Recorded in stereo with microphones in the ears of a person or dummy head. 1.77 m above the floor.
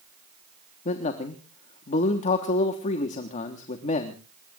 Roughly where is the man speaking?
Left.